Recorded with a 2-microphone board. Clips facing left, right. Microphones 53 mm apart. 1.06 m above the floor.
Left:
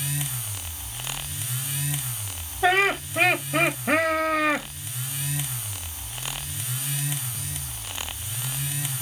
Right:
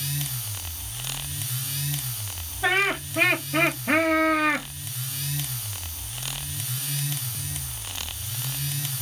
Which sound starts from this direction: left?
Laughter, at 2.6 s.